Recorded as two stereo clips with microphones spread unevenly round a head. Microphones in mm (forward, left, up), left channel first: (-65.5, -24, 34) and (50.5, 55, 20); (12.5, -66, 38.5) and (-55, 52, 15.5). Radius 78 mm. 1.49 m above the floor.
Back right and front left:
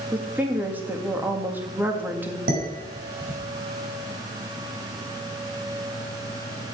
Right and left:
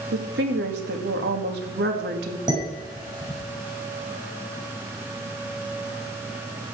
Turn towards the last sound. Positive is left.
turn(degrees=55)